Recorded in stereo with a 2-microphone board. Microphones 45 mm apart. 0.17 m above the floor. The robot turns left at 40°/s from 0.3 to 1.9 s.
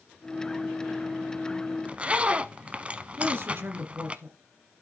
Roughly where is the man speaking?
Right.